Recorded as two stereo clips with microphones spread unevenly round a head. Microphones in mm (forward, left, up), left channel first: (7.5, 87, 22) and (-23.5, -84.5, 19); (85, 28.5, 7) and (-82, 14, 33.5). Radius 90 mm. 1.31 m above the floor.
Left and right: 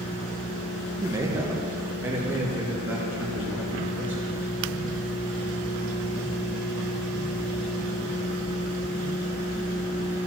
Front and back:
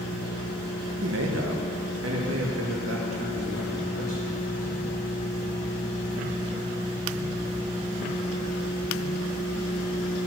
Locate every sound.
1.0 s a man speaking: 170° right, 1.3 m; by 4.4 s straight behind, 3.5 m